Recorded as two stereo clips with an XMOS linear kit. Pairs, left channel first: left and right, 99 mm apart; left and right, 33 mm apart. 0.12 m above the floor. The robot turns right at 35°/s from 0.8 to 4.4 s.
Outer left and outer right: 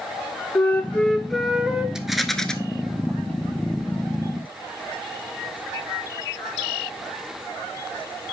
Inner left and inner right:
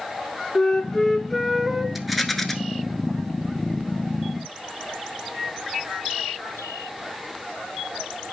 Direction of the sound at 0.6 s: 160° left.